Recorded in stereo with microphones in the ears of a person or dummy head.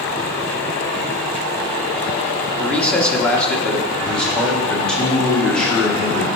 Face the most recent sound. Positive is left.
turn(degrees=0)  # may be behind; listen again after turning